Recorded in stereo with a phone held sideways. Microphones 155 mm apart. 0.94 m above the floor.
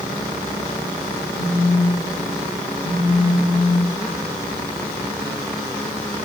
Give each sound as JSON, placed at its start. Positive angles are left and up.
{"t": 1.4, "sound": "a phone buzzing", "side_deg": -55, "distance_m": 2.5}